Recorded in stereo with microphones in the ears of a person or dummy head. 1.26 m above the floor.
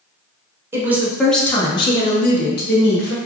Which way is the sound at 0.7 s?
10° right (ahead or behind).